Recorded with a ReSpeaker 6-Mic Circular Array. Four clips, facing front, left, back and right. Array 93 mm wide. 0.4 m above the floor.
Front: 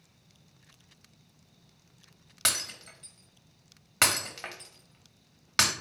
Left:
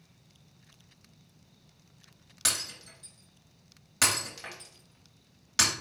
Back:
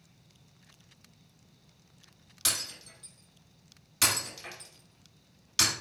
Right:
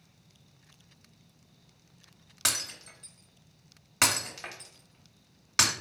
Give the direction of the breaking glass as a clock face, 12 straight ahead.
1 o'clock.